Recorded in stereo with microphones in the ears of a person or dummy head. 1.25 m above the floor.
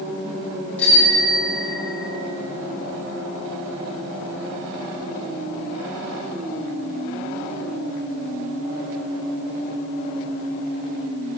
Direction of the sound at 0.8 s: 10° left (ahead or behind).